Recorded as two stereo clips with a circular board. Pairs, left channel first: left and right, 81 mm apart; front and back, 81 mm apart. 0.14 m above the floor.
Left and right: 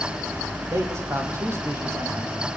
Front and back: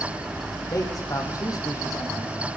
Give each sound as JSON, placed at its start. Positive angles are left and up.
{"t": 0.7, "sound": "a man speaking", "azimuth_deg": -40, "distance_m": 6.0}